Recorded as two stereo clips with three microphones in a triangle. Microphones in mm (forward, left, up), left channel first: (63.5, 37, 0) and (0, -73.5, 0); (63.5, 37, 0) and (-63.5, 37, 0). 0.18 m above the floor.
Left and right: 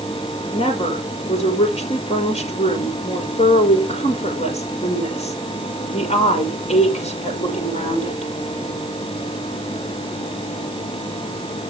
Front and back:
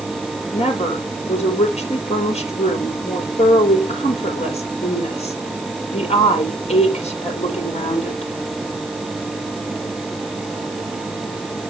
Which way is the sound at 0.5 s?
35° left.